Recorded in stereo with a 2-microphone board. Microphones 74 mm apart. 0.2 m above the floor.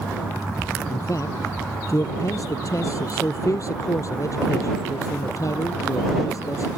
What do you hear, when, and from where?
0.9 s a man speaking: 50° left (ahead or behind)